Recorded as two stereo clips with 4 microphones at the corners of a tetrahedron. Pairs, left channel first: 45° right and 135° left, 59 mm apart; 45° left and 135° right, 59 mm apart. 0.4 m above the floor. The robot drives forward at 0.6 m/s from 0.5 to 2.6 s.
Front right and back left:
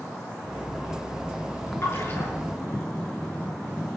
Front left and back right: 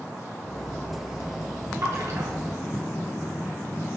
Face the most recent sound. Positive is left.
turn(degrees=-100)